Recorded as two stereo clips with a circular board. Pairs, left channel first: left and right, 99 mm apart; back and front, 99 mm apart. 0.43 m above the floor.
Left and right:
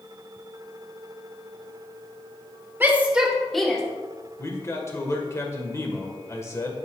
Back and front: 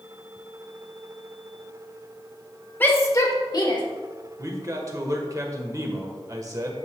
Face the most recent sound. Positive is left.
turn(degrees=40)